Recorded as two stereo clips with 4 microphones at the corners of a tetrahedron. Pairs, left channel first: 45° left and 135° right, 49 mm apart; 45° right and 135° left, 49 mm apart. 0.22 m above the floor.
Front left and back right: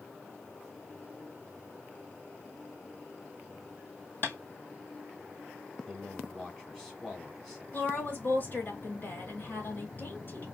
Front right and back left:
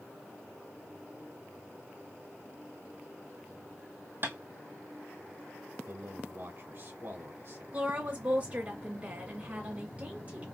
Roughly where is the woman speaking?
Left.